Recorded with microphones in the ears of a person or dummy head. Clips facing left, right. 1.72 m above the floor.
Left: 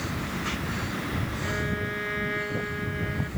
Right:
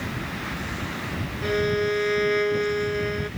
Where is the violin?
50° right (ahead or behind).